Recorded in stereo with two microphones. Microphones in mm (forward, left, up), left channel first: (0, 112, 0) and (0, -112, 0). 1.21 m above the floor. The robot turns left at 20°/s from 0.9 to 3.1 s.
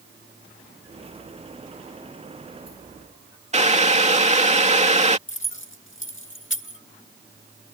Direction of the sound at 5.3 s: 60° left (ahead or behind).